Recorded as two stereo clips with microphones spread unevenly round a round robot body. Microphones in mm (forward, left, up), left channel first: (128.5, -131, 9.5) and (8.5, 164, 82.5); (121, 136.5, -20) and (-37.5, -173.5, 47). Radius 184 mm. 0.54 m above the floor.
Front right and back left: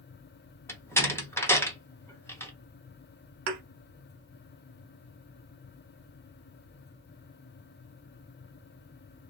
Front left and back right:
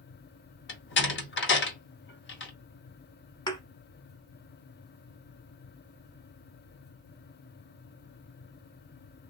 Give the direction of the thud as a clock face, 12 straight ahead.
7 o'clock.